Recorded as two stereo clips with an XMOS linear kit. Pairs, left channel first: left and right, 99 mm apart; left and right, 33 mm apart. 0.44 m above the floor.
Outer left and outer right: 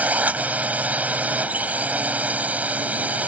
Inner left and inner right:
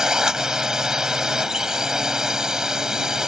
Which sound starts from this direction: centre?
A drone, at 0.0 s.